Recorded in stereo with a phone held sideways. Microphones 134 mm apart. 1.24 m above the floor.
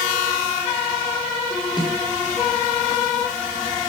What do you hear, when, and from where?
1.8 s a snare drum: 30° left (ahead or behind), 7.5 m